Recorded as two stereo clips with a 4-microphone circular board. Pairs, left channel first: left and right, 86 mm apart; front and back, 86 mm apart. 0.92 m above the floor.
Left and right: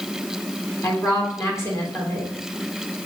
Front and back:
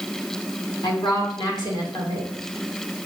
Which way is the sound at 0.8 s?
35° left.